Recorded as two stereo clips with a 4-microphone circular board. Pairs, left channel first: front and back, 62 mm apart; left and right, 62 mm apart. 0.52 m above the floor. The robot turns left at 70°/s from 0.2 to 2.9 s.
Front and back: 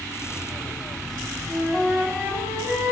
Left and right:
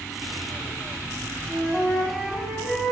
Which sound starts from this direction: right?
A flute, at 1.5 s.